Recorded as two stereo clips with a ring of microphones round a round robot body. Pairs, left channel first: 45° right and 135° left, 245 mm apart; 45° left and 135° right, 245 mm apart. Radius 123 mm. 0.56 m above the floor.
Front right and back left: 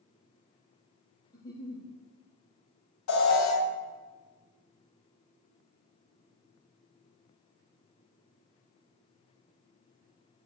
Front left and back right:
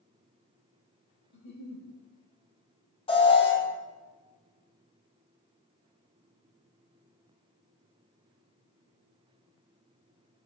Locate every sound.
1.3 s a giggle: 30° left, 3 m
3.1 s an alarm: 25° right, 3 m